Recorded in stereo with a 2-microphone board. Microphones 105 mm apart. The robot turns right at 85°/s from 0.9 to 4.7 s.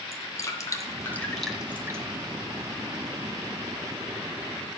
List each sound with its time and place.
0.1 s dripping: 30° left (ahead or behind), 1.7 m; by 2.0 s 35° right (ahead or behind), 1.7 m